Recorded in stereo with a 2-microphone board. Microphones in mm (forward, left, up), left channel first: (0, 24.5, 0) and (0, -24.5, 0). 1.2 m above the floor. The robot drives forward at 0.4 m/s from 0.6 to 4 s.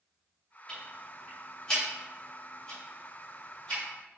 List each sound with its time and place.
0.7 s ticking: 20° left (ahead or behind), 1.1 m; by 3.8 s 10° left (ahead or behind), 2.5 m